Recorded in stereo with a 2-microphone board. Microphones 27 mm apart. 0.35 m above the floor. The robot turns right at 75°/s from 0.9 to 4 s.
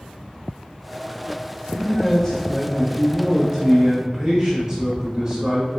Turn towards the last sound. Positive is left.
turn(degrees=-25)  # may be behind; listen again after turning